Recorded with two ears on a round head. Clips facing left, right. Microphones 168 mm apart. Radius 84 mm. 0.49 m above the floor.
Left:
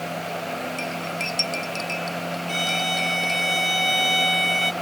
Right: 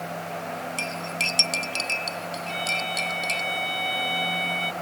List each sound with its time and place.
0.8 s cutlery clinking: 40° right (ahead or behind)
2.5 s a violin: 55° left (ahead or behind)